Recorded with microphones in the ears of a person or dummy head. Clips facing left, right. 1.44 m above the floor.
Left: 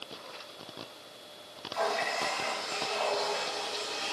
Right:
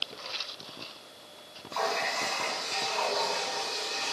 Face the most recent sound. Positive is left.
turn(degrees=-80)